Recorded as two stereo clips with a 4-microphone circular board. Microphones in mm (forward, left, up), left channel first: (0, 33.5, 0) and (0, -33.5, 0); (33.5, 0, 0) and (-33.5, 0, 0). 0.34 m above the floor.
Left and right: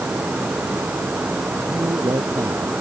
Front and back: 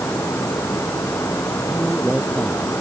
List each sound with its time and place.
1.7 s a man speaking: 80° right